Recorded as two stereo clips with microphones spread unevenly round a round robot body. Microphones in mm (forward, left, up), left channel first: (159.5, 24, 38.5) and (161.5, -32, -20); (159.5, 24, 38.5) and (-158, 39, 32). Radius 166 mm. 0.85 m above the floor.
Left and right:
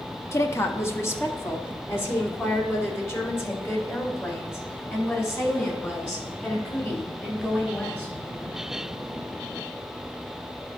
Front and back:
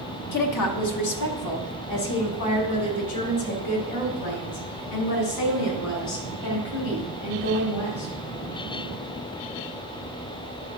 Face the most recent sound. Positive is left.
turn(degrees=30)